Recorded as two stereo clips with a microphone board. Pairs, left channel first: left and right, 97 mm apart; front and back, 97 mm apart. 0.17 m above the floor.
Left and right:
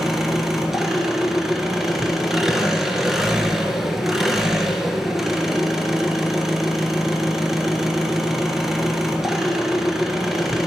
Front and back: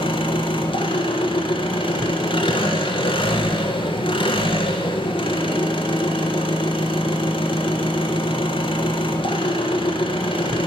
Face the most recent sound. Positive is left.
turn(degrees=-5)